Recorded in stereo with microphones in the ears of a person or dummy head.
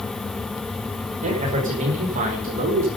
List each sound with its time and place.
1.2 s a man speaking: 40° right (ahead or behind), 6 m